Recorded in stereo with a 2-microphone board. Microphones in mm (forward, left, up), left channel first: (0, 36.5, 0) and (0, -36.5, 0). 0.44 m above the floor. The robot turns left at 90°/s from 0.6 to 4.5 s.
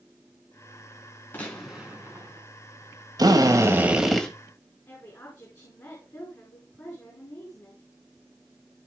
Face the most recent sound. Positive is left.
turn(degrees=45)  # may be behind; listen again after turning